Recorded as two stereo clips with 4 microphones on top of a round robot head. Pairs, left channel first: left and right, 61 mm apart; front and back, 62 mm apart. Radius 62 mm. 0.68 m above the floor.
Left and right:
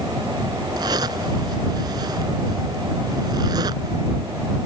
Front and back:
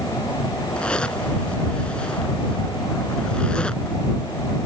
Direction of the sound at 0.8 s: 75° right.